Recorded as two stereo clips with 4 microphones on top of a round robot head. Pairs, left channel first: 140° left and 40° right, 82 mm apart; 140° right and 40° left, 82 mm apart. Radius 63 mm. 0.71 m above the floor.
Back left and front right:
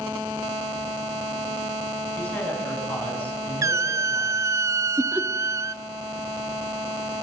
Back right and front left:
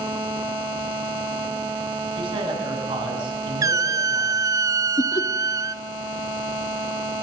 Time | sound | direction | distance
2.2 | a man speaking | 65° left | 8.5 m
3.6 | a squeak | 5° left | 0.6 m
5.0 | laughter | 110° right | 1.5 m